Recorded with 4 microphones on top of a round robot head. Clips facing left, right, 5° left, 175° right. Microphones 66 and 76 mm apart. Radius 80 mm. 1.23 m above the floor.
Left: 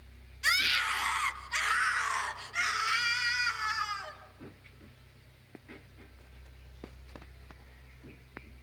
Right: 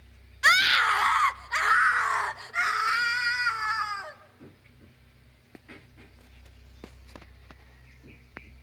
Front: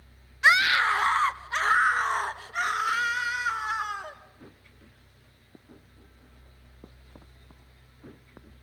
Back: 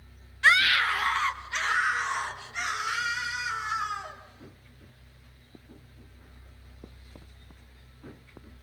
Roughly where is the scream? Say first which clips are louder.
Right 9 dB, front 1 dB; right.